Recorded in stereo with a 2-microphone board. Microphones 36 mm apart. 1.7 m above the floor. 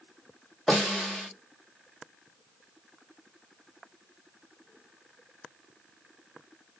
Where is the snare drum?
5° left (ahead or behind), 1.1 m.